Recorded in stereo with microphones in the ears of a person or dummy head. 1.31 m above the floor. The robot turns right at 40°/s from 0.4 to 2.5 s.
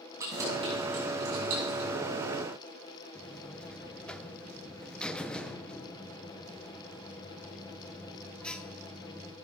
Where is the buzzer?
5° left (ahead or behind), 1.0 m.